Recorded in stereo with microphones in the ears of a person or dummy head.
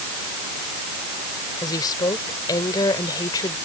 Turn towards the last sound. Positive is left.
turn(degrees=15)  # may be behind; listen again after turning